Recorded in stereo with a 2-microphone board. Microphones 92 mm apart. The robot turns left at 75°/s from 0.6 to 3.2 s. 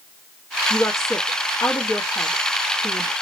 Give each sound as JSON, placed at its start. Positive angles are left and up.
{"t": 0.7, "sound": "a woman speaking", "side_deg": 20, "distance_m": 1.2}